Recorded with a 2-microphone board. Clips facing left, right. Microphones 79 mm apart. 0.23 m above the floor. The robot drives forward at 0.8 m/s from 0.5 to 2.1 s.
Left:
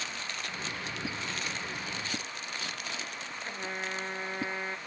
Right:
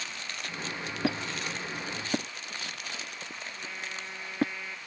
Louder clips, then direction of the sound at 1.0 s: Right 8 dB; 70° right (ahead or behind).